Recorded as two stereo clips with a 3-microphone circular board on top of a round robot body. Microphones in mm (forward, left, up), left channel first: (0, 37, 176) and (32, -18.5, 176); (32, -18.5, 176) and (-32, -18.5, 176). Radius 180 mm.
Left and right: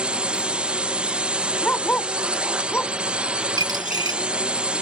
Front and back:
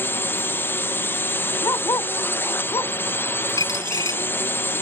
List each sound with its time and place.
0.0 s a drone: straight ahead
1.6 s a dog barking: 50° left
3.6 s a dropped coin: 35° right